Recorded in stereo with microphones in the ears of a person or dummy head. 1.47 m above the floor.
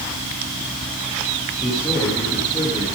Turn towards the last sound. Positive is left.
turn(degrees=20)  # may be behind; listen again after turning